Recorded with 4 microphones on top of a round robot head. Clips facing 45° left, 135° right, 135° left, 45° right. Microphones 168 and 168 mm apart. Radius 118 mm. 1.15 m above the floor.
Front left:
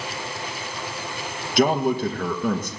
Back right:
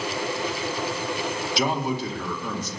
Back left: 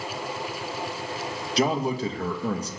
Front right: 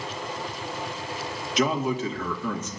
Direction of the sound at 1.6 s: 80° left.